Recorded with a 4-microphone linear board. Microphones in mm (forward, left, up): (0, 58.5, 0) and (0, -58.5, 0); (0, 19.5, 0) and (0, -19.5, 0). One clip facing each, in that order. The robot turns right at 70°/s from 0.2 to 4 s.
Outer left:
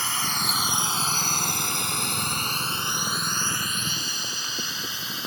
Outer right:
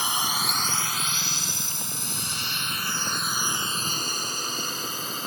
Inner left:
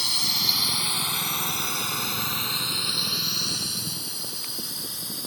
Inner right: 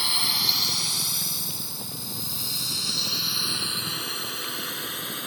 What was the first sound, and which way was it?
A drone, 15° right (ahead or behind).